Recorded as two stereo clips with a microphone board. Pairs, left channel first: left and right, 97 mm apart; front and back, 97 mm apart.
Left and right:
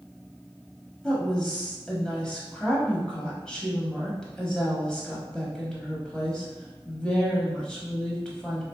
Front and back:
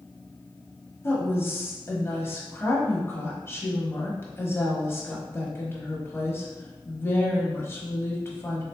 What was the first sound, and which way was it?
A woman speaking, 20° left.